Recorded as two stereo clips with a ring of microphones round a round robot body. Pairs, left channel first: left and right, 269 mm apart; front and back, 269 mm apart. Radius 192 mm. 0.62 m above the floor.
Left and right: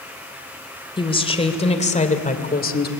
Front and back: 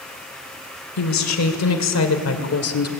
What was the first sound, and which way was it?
A woman speaking, 15° left.